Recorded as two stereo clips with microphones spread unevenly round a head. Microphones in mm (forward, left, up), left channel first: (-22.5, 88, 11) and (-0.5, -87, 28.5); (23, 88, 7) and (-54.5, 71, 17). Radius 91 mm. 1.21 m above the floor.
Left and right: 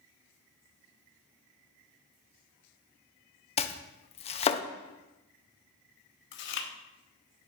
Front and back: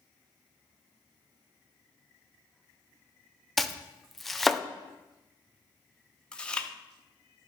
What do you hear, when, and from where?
3.6 s chopping: 90° left, 0.5 m
6.3 s chewing: 90° left, 0.9 m